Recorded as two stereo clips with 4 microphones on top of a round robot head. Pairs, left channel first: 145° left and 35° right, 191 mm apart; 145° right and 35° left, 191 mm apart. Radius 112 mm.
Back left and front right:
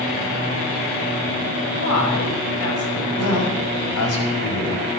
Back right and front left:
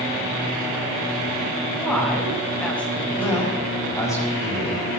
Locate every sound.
1.7 s a woman speaking: 130° left, 5 m
3.2 s a man speaking: 140° left, 6 m